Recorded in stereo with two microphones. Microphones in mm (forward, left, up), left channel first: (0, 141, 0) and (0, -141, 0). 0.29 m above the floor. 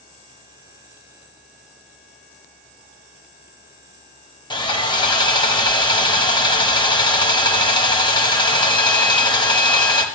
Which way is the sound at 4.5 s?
15° left (ahead or behind).